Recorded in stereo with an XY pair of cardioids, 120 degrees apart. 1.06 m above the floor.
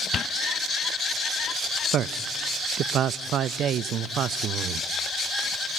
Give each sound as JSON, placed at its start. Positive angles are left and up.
{"t": 1.9, "sound": "a man speaking", "azimuth_deg": -55, "distance_m": 0.5}